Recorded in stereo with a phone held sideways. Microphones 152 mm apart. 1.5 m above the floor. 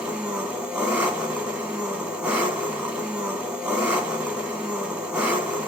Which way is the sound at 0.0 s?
10° right (ahead or behind).